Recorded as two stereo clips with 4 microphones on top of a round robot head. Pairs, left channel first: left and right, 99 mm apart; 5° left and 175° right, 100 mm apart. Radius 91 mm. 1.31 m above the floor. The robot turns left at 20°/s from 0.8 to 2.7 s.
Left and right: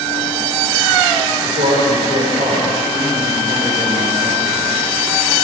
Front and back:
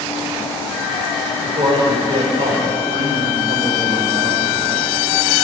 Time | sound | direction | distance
1.4 | a man speaking | 110° right | 4.5 m